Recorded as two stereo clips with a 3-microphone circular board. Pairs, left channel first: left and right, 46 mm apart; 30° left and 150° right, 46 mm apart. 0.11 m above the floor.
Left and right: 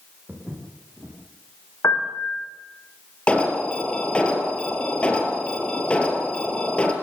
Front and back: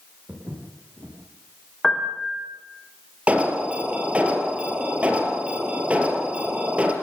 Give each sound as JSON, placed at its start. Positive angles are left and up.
{"t": 0.3, "sound": "footsteps", "azimuth_deg": -140, "distance_m": 6.5}
{"t": 1.8, "sound": "a piano", "azimuth_deg": 115, "distance_m": 6.5}
{"t": 3.3, "sound": "an alarm", "azimuth_deg": 150, "distance_m": 3.5}